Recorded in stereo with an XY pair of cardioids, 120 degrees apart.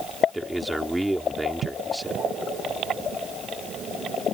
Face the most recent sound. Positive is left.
turn(degrees=-5)